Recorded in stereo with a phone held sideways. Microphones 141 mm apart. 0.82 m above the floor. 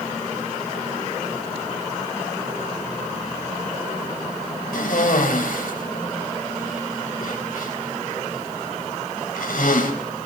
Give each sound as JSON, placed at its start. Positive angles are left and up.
{"t": 4.7, "sound": "a cough", "side_deg": 80, "distance_m": 4.5}